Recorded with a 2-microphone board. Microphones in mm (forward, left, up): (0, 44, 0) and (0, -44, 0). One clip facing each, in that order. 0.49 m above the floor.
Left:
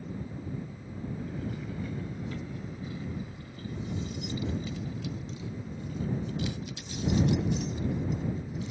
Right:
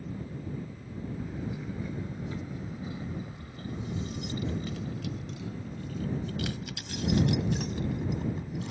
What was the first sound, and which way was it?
Keys jangling, 5° right (ahead or behind).